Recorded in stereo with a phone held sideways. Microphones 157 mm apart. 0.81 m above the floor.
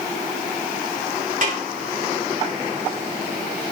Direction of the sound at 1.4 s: 55° right (ahead or behind).